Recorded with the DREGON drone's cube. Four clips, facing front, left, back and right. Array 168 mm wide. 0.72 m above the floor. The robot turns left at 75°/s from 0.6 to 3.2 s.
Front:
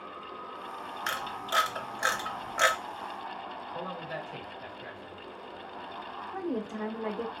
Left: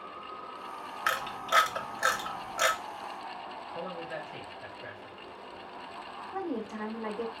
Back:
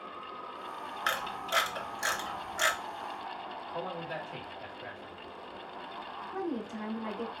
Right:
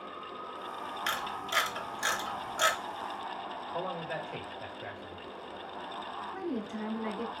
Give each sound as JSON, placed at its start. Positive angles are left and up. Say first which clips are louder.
{"t": 1.1, "sound": "a camera shutter", "louder": "left 7 dB, even", "azimuth_deg": 125, "distance_m": 0.7}
{"t": 3.7, "sound": "a man speaking", "louder": "right 2 dB, back 1 dB", "azimuth_deg": -95, "distance_m": 1.7}
{"t": 6.3, "sound": "a woman speaking", "louder": "left 3 dB, front 2 dB", "azimuth_deg": 40, "distance_m": 1.4}